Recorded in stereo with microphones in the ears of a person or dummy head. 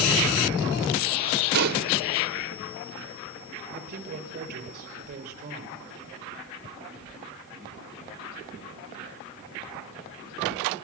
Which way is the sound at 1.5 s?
55° right (ahead or behind).